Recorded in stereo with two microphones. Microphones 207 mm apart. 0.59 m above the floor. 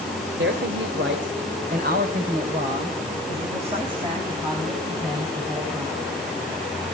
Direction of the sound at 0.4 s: 70° right (ahead or behind).